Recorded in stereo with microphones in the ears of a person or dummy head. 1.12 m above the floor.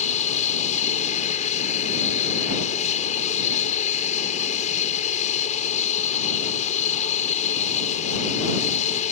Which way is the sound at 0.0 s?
40° left (ahead or behind).